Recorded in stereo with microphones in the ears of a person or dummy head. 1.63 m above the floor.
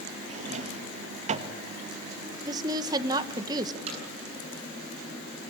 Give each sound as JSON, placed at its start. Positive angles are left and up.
{"t": 0.3, "sound": "a drawer", "side_deg": -35, "distance_m": 1.4}
{"t": 2.5, "sound": "a woman speaking", "side_deg": -30, "distance_m": 1.5}
{"t": 3.9, "sound": "hammering", "side_deg": -40, "distance_m": 8.5}